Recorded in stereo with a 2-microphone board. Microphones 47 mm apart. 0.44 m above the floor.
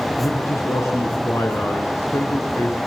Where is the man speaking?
80° left, 4.5 m.